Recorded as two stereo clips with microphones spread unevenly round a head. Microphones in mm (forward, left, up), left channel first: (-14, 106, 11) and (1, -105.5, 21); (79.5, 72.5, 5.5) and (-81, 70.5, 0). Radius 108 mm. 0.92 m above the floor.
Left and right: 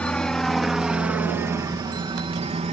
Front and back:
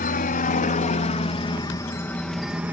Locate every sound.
0.0 s a helicopter: 10° left; by 2.7 s 110° right